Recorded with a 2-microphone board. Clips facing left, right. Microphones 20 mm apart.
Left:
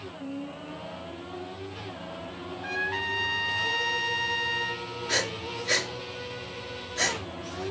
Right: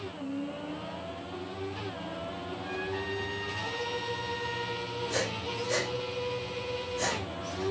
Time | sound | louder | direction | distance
2.6 | a trumpet | left 6 dB | 50° left (ahead or behind) | 2 m
5.1 | breathing | left 6 dB | 60° left (ahead or behind) | 4 m